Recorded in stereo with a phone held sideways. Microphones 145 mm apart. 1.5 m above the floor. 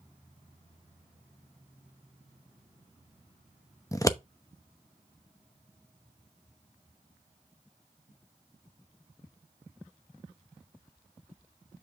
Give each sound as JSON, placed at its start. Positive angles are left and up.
{"t": 3.9, "sound": "scissors", "side_deg": 20, "distance_m": 0.8}